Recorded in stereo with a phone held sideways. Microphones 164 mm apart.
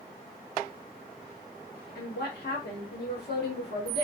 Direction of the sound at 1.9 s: 85° left.